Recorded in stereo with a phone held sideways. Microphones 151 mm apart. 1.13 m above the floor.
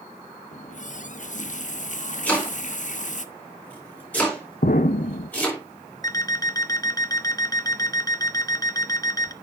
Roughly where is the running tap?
Left.